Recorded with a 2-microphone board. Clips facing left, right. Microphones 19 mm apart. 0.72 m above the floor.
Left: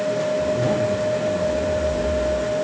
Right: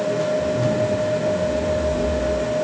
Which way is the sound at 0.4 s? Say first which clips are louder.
Even; 60° left (ahead or behind).